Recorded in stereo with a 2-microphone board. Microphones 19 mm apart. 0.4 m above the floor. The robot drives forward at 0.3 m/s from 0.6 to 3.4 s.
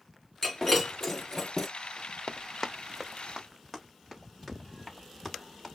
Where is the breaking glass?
20° left (ahead or behind), 3 m.